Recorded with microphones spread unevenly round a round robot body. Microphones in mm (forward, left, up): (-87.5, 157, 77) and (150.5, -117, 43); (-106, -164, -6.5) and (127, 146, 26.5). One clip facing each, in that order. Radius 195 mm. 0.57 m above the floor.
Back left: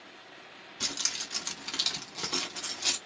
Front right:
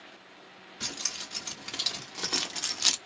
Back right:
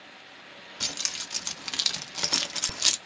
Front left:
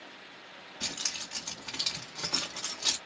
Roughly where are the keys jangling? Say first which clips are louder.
Back left 1 dB, even; behind.